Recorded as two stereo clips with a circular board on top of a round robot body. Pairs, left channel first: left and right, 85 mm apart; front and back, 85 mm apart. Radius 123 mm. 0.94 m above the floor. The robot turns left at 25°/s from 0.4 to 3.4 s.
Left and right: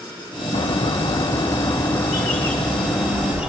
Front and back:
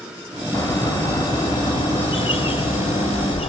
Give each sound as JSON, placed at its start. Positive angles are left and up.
{"t": 0.5, "sound": "a bird", "azimuth_deg": 60, "distance_m": 2.0}